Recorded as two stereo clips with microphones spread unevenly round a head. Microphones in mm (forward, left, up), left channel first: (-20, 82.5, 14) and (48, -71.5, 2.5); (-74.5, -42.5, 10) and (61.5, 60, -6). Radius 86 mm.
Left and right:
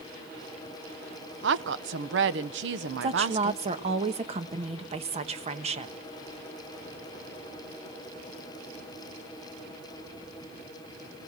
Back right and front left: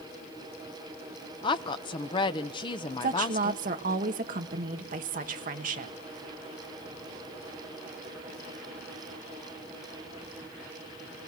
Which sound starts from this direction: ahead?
A woman speaking, at 3.0 s.